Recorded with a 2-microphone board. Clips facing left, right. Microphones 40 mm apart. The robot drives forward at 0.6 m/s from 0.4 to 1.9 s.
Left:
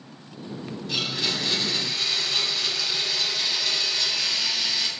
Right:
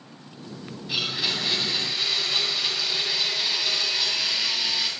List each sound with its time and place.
0.9 s a blender: 10° right (ahead or behind), 8 m